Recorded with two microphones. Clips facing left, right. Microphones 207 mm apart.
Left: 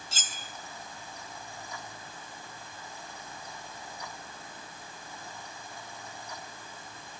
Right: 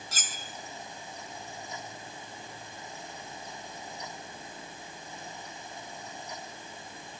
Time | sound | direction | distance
0.1 | cutlery clinking | 30° left (ahead or behind) | 1.8 m